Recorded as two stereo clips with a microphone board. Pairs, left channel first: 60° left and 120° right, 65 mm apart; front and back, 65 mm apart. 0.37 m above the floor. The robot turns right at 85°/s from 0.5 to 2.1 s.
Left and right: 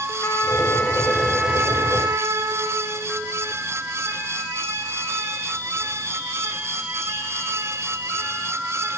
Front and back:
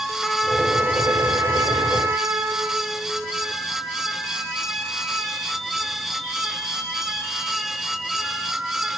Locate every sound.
0.2 s a trumpet: 85° left, 1.0 m; by 2.9 s 140° right, 1.0 m